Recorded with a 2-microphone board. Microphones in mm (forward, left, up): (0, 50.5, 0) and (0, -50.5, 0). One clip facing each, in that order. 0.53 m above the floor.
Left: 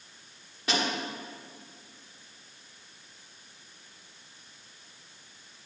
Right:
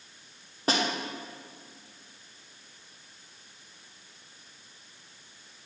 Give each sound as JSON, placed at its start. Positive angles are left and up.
{"t": 0.7, "sound": "a snare drum", "side_deg": -40, "distance_m": 1.5}